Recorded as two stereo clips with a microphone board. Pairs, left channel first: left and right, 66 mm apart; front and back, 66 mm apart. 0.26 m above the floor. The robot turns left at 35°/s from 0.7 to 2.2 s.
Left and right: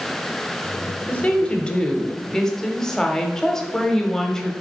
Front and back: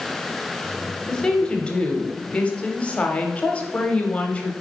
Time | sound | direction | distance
1.1 | a woman speaking | 60° left | 0.9 m